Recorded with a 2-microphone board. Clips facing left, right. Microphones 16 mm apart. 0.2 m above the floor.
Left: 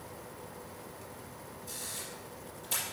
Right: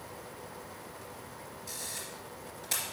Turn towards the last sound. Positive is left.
turn(degrees=-50)  # may be behind; listen again after turning